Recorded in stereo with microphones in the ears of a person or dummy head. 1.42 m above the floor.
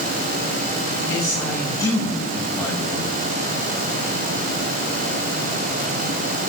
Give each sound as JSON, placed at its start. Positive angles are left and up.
{"t": 1.1, "sound": "a man speaking", "side_deg": 20, "distance_m": 5.5}